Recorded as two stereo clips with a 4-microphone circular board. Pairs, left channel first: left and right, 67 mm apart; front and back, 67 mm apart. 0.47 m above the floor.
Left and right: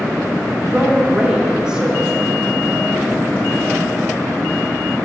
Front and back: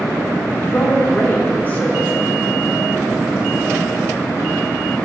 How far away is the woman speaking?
About 1.0 m.